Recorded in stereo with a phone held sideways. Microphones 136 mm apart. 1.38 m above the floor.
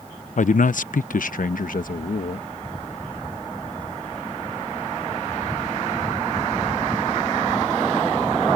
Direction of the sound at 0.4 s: 65° left (ahead or behind).